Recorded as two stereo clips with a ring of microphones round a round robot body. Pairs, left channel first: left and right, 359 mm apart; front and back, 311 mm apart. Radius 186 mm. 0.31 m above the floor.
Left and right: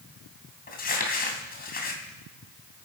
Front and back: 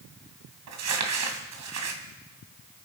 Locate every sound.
0.7 s crumpling: 155° left, 2.5 m